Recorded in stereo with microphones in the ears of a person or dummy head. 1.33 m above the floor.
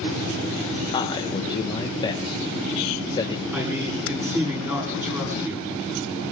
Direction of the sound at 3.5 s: 10° right (ahead or behind).